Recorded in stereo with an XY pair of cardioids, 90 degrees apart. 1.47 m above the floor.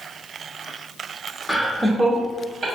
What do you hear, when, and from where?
1.5 s laughter: 5° left, 0.8 m; by 2.6 s 40° right, 1.2 m